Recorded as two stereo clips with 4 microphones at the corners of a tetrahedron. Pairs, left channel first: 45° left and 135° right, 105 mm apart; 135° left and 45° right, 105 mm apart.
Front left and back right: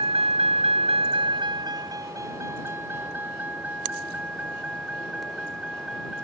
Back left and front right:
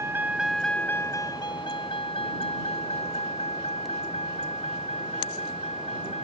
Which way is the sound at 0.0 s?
110° right.